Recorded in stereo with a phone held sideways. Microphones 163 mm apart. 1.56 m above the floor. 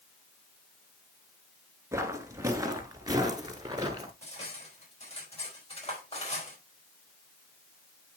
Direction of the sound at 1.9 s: 15° right (ahead or behind).